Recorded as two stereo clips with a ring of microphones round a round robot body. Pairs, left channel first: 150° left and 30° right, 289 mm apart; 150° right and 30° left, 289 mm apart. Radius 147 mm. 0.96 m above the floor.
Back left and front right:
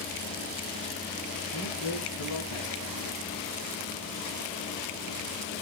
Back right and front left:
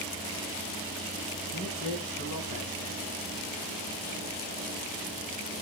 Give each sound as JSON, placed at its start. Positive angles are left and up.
{"t": 1.5, "sound": "a man speaking", "azimuth_deg": 180, "distance_m": 6.0}